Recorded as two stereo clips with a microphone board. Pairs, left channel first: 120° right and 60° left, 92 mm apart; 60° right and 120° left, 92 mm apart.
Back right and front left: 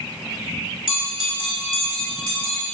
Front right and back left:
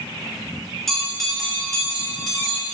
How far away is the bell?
About 2.5 m.